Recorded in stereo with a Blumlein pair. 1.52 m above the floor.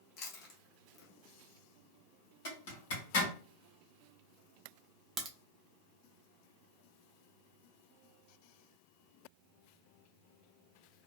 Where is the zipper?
55° left, 1.3 m.